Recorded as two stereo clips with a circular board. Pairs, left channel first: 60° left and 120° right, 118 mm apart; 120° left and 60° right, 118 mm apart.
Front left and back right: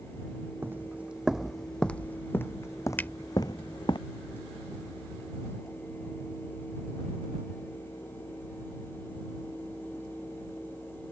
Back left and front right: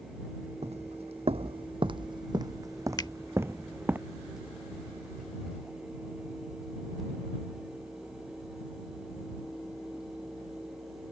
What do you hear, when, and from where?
0.6 s footsteps: 50° right; by 4.0 s 15° left
3.0 s a finger snap: 120° left